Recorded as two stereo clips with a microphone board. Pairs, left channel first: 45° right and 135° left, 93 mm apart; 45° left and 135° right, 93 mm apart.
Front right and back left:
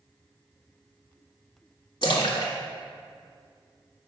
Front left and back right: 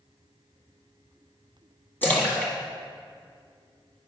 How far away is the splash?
About 1.5 m.